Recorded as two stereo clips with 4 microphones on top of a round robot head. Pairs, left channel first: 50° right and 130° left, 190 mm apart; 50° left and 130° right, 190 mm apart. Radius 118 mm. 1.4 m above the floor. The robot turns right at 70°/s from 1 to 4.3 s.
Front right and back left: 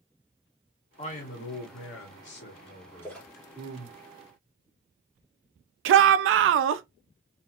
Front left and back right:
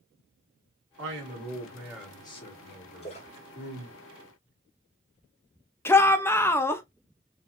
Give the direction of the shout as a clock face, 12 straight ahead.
8 o'clock.